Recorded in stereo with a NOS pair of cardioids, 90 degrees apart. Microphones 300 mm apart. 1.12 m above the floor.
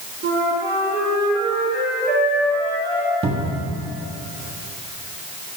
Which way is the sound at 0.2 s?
35° right.